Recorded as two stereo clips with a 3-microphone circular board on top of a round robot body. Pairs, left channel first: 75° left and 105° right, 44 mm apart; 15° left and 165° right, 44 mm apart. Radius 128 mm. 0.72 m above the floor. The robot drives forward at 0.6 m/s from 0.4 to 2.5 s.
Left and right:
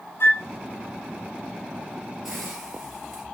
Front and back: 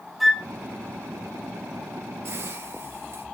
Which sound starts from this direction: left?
A flute, at 0.2 s.